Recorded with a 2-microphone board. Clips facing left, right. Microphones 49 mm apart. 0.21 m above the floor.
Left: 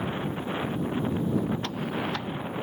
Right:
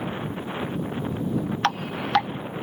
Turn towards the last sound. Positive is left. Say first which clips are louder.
# right 4 dB
turn(degrees=-75)  # may be behind; listen again after turning